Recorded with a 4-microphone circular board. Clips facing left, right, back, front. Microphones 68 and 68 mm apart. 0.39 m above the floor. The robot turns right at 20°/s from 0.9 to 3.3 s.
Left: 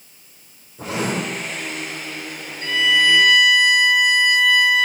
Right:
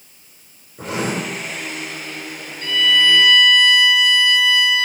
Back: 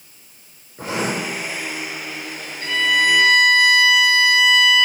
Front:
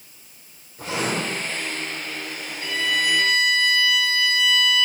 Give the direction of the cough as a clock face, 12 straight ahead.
No cough in this recording.